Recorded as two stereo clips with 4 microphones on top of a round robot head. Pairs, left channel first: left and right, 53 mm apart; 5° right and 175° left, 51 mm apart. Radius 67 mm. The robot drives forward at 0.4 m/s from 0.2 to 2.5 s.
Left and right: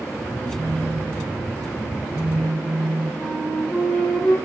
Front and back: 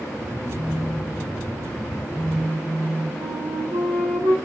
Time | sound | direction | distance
0.5 | a phone buzzing | 90° right | 6.5 m
3.2 | a flute | 170° left | 3.5 m